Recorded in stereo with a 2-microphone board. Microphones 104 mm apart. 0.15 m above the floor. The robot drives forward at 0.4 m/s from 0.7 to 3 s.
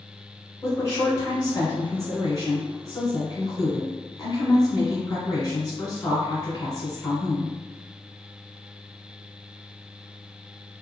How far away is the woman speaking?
About 1.9 m.